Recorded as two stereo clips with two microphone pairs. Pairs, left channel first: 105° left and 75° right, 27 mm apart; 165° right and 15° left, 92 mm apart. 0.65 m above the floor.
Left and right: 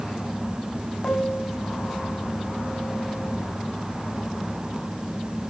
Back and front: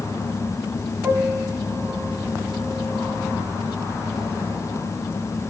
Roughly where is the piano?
Left.